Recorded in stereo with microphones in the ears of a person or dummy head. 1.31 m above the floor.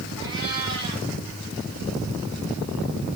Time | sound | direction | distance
0.2 | a cat meowing | 20° right (ahead or behind) | 8 m